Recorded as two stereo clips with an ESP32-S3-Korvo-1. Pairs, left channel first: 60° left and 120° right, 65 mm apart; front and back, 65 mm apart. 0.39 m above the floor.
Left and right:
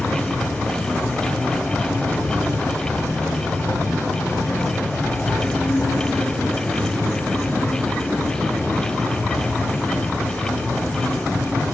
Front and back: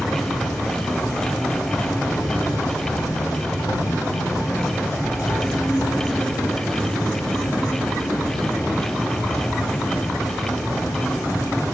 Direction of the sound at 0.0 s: 5° left.